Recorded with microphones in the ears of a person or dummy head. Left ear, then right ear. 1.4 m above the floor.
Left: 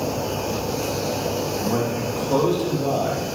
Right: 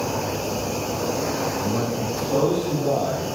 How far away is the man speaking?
About 2 m.